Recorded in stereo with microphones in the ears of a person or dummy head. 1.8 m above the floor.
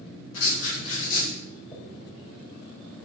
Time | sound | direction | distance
0.3 | writing | 75° left (ahead or behind) | 2 m
1.7 | a dropped coin | 30° left (ahead or behind) | 3 m